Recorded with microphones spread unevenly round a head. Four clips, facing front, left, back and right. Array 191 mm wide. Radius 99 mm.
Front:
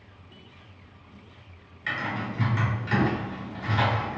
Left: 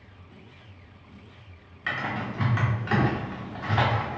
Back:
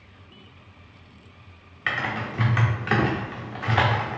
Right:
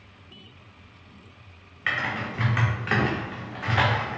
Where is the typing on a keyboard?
165° right, 0.8 m.